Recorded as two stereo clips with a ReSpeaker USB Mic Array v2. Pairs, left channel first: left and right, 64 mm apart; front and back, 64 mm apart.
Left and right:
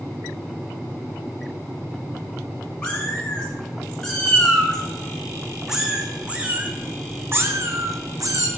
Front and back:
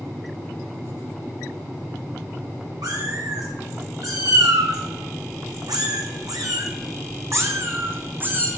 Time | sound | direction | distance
2.8 | a cat meowing | 155° left | 3.5 m